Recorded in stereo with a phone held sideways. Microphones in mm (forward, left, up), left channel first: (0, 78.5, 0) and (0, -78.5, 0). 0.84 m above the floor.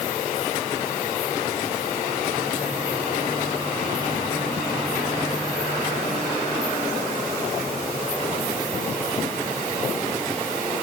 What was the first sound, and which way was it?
Only background noise.